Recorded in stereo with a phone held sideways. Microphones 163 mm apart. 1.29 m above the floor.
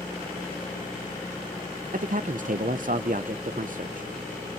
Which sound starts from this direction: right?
A man speaking, at 1.9 s.